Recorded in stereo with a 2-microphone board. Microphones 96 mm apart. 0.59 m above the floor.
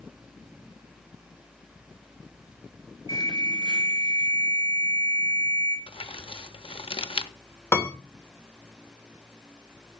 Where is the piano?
30° left (ahead or behind), 1.8 m.